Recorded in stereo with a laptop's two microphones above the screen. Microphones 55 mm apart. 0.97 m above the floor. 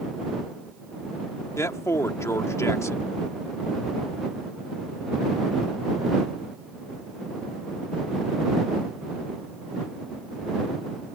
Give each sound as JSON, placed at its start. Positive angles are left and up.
{"t": 1.6, "sound": "a man speaking", "side_deg": 70}